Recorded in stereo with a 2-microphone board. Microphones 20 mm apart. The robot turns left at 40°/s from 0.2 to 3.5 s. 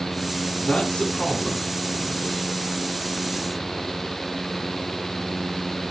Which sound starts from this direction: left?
A man speaking, at 0.6 s.